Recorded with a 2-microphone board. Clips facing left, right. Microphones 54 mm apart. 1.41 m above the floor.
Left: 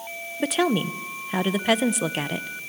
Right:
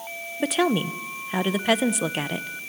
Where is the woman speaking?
Centre (ahead or behind), 0.6 m.